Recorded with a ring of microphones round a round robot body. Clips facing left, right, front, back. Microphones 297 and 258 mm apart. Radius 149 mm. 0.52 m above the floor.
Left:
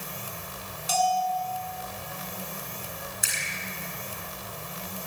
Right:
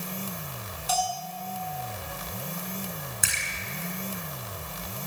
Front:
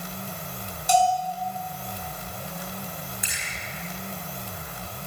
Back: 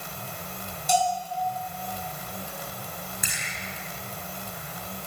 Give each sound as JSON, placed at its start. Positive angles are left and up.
{"t": 0.9, "sound": "a bell", "azimuth_deg": 25, "distance_m": 6.5}
{"t": 3.2, "sound": "a splash", "azimuth_deg": -130, "distance_m": 7.0}